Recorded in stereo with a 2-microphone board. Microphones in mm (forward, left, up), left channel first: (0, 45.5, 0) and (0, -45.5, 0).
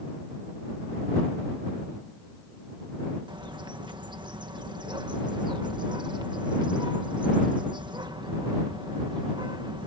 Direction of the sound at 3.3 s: 50° right (ahead or behind).